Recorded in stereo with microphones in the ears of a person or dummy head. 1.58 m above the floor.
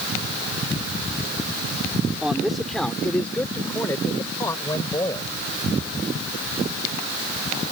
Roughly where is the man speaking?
Centre.